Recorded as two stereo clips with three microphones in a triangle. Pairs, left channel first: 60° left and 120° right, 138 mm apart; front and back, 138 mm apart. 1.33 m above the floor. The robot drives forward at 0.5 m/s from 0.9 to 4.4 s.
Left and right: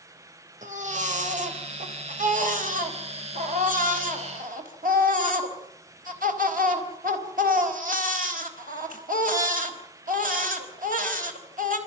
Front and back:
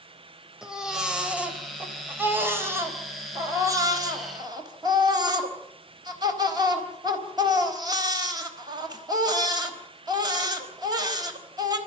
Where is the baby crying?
95° right, 3.5 m; by 11.8 s 120° right, 4 m.